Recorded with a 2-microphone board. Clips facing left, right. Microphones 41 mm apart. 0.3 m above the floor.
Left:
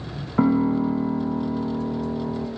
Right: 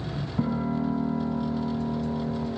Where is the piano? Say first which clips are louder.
Left 8 dB; 60° left (ahead or behind), 0.6 m.